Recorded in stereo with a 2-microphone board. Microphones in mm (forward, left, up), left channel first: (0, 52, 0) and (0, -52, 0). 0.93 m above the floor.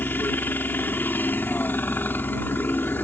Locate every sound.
0.0 s a helicopter: 20° left (ahead or behind)